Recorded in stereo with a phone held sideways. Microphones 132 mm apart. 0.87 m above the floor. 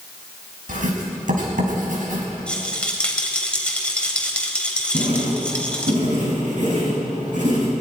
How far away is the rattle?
About 3 m.